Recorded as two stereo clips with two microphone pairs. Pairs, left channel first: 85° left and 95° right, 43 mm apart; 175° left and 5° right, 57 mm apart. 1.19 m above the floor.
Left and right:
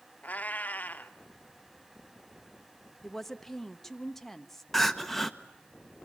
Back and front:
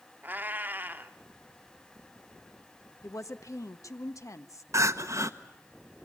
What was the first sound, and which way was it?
A cat meowing, 40° left.